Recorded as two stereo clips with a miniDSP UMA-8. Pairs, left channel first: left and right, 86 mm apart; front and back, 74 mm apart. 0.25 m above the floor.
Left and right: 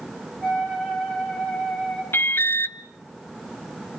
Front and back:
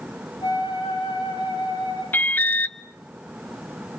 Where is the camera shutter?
I don't hear a camera shutter.